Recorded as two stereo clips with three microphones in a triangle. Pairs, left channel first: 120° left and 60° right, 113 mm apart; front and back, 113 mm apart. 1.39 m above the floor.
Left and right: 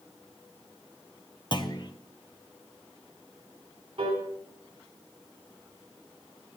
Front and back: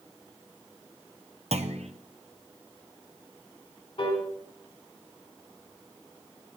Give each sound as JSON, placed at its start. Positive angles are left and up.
{"t": 1.5, "sound": "a clunk", "azimuth_deg": 165, "distance_m": 0.8}
{"t": 4.0, "sound": "a piano", "azimuth_deg": -25, "distance_m": 3.0}